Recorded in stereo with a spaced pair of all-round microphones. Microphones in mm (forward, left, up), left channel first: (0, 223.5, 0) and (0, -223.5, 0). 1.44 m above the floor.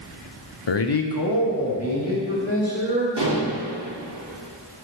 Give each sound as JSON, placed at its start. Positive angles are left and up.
{"t": 0.7, "sound": "a man speaking", "side_deg": 75, "distance_m": 0.6}
{"t": 3.2, "sound": "dishes clattering", "side_deg": -60, "distance_m": 2.0}